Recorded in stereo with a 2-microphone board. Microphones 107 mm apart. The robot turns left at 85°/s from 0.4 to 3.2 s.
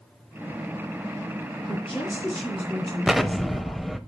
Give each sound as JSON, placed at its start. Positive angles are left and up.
{"t": 1.7, "sound": "a woman speaking", "azimuth_deg": 85, "distance_m": 3.5}
{"t": 3.1, "sound": "an explosion", "side_deg": -10, "distance_m": 0.5}